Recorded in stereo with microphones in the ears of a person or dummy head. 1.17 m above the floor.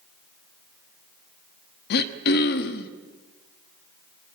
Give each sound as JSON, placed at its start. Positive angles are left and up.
{"t": 1.9, "sound": "throat clearing", "side_deg": 65, "distance_m": 1.1}